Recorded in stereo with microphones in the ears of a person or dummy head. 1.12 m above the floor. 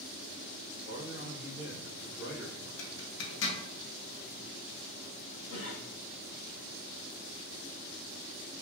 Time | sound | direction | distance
0.7 | a man speaking | 75° left (ahead or behind) | 1.6 m
2.8 | a zipper | 70° left (ahead or behind) | 0.8 m
5.5 | a cough | 50° left (ahead or behind) | 1.2 m